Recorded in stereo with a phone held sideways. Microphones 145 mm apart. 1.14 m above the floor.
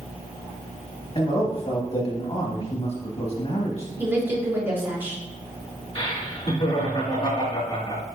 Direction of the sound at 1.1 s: 45° left (ahead or behind).